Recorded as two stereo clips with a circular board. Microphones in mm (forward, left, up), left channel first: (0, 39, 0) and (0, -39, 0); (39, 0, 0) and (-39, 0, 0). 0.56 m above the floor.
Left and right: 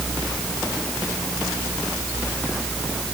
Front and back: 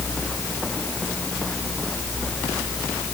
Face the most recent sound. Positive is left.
No sound to turn to.